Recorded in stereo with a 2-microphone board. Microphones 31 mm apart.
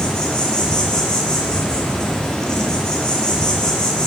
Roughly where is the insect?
Left.